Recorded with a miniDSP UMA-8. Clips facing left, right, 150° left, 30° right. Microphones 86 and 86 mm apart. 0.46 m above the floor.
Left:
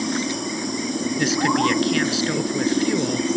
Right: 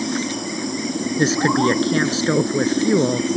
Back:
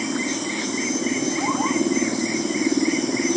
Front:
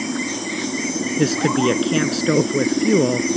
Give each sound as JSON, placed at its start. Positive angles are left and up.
{"t": 1.2, "sound": "a woman speaking", "azimuth_deg": -35}